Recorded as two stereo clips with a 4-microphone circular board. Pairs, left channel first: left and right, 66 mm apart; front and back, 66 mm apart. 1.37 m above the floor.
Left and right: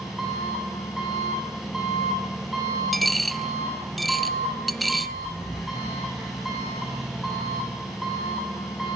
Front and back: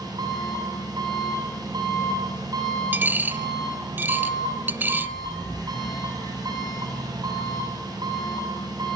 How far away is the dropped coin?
About 0.8 m.